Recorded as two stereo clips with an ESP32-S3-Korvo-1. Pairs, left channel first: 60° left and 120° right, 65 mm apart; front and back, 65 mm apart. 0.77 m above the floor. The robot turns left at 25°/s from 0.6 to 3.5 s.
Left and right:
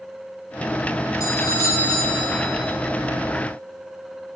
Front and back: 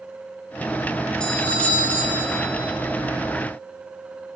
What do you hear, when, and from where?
1.2 s a doorbell: 75° left, 2.5 m; by 2.7 s 40° left, 2.5 m